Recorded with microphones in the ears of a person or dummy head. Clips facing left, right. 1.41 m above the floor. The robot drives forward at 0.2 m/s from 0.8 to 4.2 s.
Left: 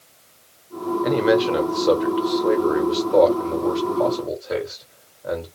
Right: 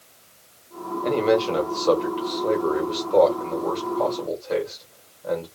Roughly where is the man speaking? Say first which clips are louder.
Left 2 dB; centre.